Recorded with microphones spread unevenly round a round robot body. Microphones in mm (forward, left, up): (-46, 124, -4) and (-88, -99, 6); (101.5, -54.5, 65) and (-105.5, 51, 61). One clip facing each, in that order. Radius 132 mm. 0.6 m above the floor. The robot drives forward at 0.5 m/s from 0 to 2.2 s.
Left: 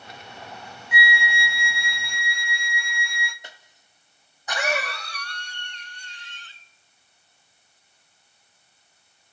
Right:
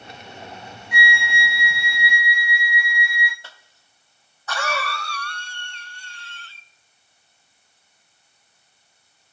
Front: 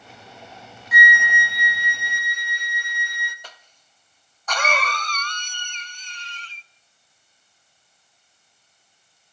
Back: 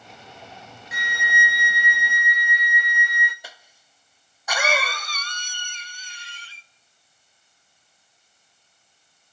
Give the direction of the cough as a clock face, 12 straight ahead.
9 o'clock.